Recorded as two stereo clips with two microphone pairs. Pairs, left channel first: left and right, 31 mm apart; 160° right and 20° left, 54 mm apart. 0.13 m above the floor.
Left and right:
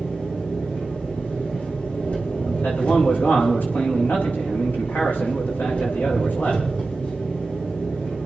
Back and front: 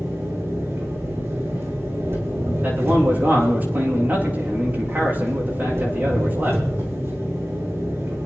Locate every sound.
0.0 s an engine running: 55° left, 6 m
2.6 s a man speaking: 75° left, 8 m